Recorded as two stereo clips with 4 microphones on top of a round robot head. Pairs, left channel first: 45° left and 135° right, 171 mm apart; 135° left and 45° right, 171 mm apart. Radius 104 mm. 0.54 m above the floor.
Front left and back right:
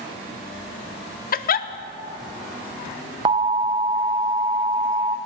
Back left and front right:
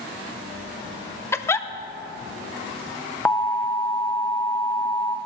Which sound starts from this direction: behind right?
An alarm, at 3.2 s.